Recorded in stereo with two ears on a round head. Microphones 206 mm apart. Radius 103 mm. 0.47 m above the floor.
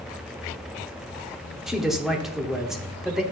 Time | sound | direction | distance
1.7 | a man speaking | centre (ahead or behind) | 1.3 m